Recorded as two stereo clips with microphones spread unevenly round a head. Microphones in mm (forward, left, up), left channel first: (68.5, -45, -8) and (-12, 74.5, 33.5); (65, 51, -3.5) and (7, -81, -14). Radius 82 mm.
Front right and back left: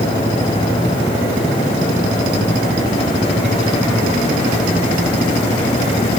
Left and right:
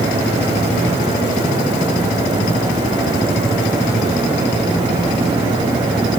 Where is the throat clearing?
No throat clearing in this recording.